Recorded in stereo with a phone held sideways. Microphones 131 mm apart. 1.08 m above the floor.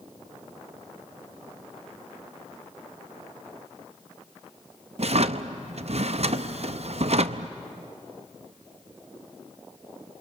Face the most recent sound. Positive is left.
turn(degrees=-60)  # may be behind; listen again after turning